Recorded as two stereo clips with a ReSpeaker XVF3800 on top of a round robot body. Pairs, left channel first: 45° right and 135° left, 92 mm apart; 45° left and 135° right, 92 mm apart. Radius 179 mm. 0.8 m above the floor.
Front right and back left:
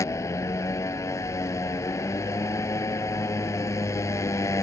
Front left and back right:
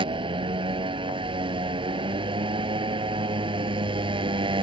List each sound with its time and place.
0.0 s a motorcycle: 105° right